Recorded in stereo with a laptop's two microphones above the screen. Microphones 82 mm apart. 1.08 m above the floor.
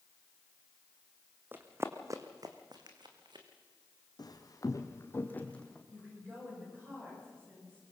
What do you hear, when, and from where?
1.5 s running footsteps: 25° right (ahead or behind), 2.5 m; by 3.5 s 70° right (ahead or behind), 3 m
4.2 s footsteps: 60° left (ahead or behind), 2 m; by 5.8 s 10° left (ahead or behind), 2.5 m
5.9 s a woman speaking: 25° right (ahead or behind), 6.5 m